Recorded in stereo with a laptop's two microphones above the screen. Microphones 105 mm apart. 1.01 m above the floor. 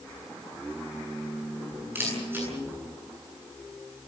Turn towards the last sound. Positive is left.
turn(degrees=-20)  # may be behind; listen again after turning